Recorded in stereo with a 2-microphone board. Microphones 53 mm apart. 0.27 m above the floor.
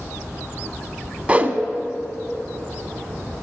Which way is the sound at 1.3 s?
25° right (ahead or behind).